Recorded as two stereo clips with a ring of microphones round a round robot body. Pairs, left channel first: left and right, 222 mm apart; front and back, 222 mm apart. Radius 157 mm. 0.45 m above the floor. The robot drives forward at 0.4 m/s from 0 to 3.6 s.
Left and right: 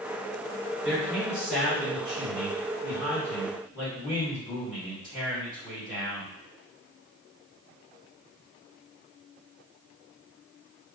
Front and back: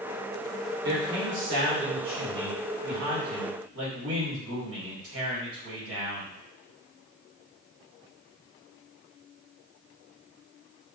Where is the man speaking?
175° right, 1.7 m; by 6.3 s straight behind, 2.5 m.